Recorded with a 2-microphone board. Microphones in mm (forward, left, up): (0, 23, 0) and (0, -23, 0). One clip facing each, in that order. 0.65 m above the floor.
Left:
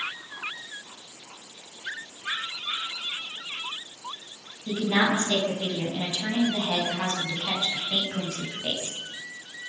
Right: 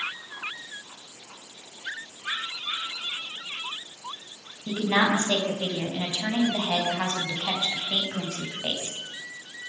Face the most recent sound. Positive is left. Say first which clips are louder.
# right 1 dB
turn(degrees=-25)  # may be behind; listen again after turning